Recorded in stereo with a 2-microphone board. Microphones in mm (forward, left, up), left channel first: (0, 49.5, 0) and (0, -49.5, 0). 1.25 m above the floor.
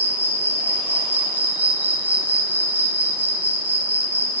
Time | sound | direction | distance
0.0 | an insect | 20° right (ahead or behind) | 2.5 m